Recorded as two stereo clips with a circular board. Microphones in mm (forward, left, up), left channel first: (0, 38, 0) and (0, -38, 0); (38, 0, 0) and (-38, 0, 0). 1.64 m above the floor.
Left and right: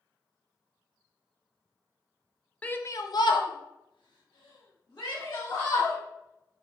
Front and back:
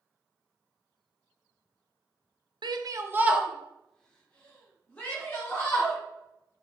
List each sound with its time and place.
2.6 s a shout: 160° left, 0.6 m; by 6.0 s 65° left, 2.5 m